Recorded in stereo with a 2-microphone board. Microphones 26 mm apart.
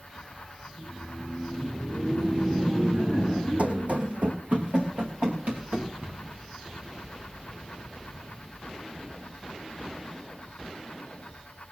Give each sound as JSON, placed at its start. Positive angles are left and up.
{"t": 0.7, "sound": "laughter", "side_deg": -65, "distance_m": 6.5}
{"t": 3.6, "sound": "running footsteps", "side_deg": -60, "distance_m": 1.5}
{"t": 6.0, "sound": "a cupboard door", "side_deg": -80, "distance_m": 3.5}